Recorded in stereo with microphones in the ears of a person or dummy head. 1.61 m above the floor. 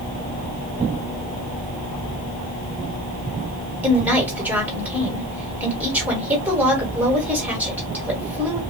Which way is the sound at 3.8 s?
10° right (ahead or behind).